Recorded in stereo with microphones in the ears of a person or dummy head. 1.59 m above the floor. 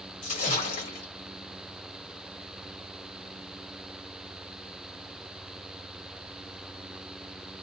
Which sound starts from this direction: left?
A splash, at 0.2 s.